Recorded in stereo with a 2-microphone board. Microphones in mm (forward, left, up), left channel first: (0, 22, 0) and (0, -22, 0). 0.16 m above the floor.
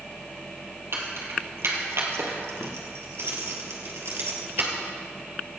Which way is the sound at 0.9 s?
60° right (ahead or behind).